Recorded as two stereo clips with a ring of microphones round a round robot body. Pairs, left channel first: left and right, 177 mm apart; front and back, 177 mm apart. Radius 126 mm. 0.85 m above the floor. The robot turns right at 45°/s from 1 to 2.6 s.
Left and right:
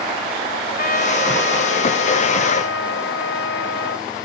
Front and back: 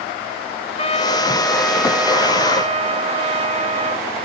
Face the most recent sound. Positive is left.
turn(degrees=125)